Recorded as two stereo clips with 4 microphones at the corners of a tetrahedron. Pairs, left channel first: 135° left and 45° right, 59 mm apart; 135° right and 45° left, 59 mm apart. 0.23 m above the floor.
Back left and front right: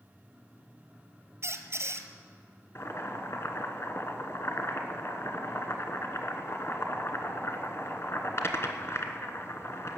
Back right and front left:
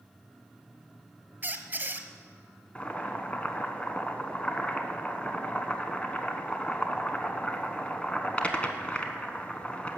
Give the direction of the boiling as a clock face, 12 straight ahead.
7 o'clock.